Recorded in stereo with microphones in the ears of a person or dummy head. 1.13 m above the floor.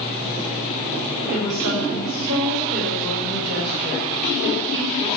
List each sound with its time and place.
1.3 s a woman speaking: 65° right (ahead or behind), 4 m